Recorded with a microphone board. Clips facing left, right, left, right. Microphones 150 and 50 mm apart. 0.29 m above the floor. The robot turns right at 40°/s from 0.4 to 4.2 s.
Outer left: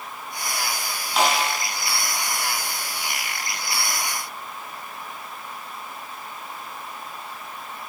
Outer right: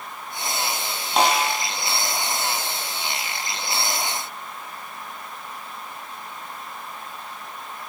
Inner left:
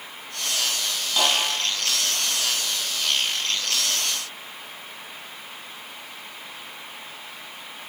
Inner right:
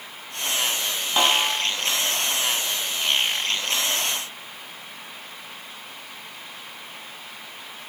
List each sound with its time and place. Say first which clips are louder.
1.2 s a snare drum: outer right 2 dB, inner right 2 dB; 35° right (ahead or behind), 1.0 m; by 1.6 s 50° right (ahead or behind), 1.0 m